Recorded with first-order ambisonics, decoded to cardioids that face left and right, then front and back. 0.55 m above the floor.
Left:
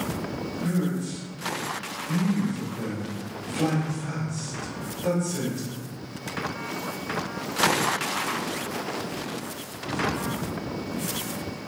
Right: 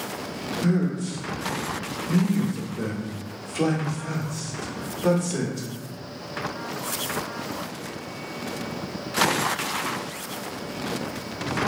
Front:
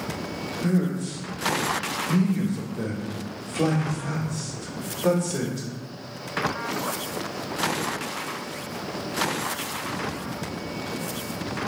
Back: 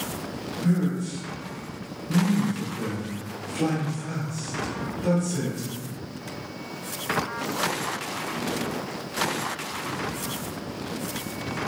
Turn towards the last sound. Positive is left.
turn(degrees=-65)